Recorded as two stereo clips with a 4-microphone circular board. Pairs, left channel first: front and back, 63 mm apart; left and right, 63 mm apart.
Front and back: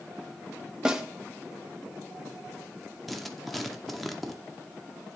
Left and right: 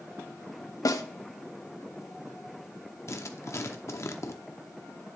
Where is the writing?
90° left, 0.7 m.